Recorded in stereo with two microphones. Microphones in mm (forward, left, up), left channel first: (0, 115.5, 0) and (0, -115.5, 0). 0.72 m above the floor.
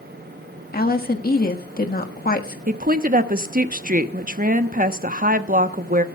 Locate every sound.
0.7 s a woman speaking: 40° left (ahead or behind), 1.4 m
2.7 s a woman speaking: 35° right (ahead or behind), 1.0 m